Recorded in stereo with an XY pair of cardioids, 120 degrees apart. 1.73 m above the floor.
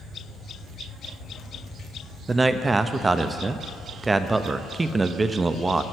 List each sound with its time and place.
2.3 s a man speaking: 20° right, 0.6 m